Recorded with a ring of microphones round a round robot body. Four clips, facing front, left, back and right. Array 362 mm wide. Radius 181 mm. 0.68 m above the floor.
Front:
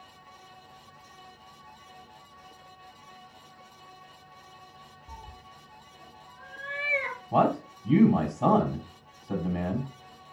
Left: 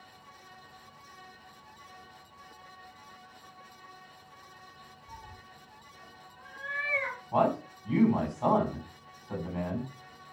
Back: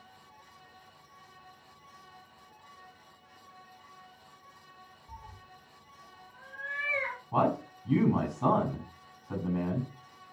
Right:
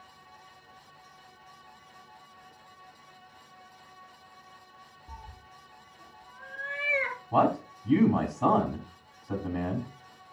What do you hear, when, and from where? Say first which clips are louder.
5.1 s a cat meowing: right 1 dB, front 3 dB; 20° right, 7 m
7.3 s a man speaking: right 2 dB, front 4 dB; 30° right, 6.5 m